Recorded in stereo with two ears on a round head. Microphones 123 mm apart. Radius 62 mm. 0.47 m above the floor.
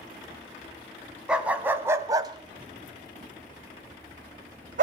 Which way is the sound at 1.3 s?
5° right (ahead or behind).